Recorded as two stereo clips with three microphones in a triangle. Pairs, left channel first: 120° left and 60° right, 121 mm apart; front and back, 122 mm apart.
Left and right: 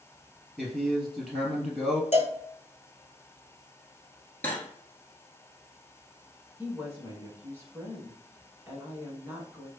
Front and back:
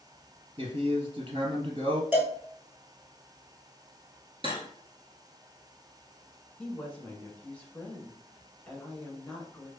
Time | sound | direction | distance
0.6 | a man speaking | 150° right | 1.8 m
2.1 | a cowbell | 105° left | 0.7 m
4.4 | cutlery clinking | 170° right | 1.0 m
6.6 | a woman speaking | 55° right | 1.1 m